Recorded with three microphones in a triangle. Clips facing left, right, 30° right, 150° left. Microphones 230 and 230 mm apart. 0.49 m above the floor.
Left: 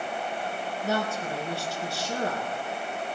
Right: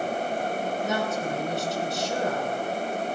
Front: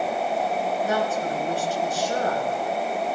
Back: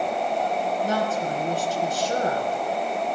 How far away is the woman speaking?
About 5.5 m.